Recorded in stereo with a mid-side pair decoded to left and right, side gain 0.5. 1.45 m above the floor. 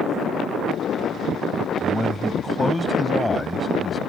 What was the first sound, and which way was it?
A man speaking, 20° left.